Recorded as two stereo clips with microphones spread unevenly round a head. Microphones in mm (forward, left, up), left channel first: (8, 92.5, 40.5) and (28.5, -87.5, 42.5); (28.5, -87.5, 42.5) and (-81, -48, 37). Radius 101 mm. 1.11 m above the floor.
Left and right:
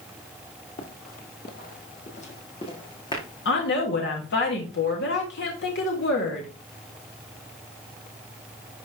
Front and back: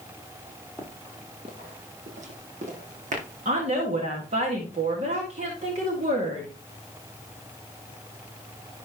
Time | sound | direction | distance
0.8 | running footsteps | 65° left | 1.5 m
3.5 | a woman speaking | 125° left | 1.8 m